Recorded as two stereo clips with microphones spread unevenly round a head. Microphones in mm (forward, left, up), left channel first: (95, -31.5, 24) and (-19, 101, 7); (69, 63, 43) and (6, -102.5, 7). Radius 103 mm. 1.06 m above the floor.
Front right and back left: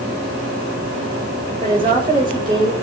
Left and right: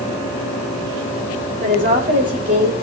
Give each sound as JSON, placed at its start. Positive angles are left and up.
{"t": 1.6, "sound": "a woman speaking", "azimuth_deg": -160, "distance_m": 4.5}